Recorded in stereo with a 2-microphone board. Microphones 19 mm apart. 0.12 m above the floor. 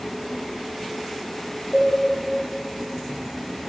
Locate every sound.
1.7 s a cowbell: 20° right (ahead or behind), 0.9 m